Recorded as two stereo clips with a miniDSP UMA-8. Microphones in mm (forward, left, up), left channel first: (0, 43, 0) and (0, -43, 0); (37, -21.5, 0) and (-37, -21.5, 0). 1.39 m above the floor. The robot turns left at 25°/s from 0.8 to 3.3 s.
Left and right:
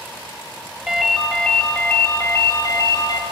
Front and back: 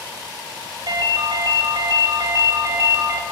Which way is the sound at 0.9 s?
Straight behind.